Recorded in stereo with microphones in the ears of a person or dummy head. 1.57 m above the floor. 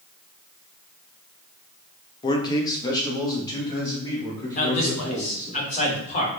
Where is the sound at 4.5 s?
35° left (ahead or behind), 1.4 m.